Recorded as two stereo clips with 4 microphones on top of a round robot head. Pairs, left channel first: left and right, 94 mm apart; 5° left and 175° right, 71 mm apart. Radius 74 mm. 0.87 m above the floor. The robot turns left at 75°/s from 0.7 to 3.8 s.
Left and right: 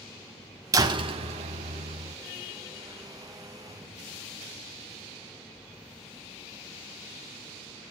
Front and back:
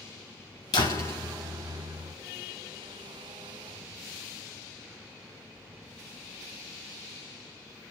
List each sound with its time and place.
0.7 s a door slam: 35° right, 3.5 m; by 2.1 s 140° right, 3.5 m